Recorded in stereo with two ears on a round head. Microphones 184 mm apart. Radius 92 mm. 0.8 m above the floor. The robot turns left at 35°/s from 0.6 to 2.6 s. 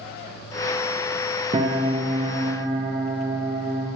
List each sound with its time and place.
1.5 s a piano: 25° right (ahead or behind), 0.6 m; by 3.9 s 15° right (ahead or behind), 0.6 m